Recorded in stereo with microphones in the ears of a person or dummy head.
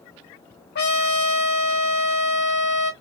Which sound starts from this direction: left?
A trumpet, at 0.8 s.